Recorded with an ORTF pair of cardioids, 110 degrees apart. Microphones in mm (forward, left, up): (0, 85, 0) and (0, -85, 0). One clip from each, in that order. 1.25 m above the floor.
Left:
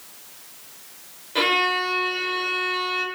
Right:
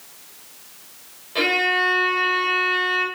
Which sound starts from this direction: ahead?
A violin, at 1.4 s.